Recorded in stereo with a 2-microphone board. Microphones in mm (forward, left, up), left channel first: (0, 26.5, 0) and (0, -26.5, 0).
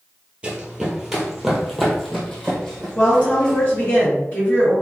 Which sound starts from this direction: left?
A woman speaking, at 3.0 s.